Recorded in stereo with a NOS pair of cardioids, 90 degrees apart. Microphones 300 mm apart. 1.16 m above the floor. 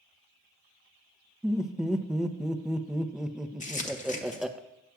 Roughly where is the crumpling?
Ahead left.